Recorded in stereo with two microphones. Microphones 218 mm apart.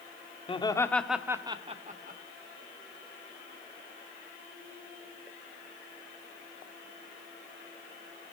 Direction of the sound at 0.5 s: 25° left (ahead or behind).